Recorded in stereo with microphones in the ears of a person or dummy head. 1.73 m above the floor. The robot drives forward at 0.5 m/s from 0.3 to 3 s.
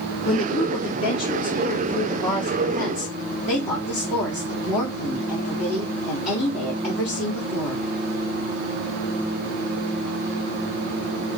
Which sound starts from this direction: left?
A woman speaking, at 0.2 s.